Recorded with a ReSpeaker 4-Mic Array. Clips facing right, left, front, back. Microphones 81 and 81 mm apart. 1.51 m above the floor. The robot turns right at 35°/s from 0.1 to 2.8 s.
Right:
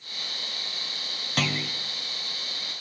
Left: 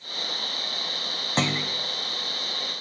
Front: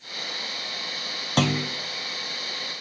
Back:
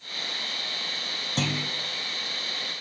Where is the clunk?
25° left, 1.0 m; by 1.8 s 40° left, 1.0 m.